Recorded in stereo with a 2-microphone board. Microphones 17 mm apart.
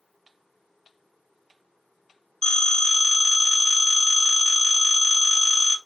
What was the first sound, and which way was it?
A phone ringing, 45° left (ahead or behind).